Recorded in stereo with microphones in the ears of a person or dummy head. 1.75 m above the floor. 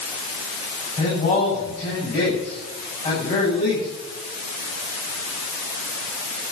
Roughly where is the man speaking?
Left.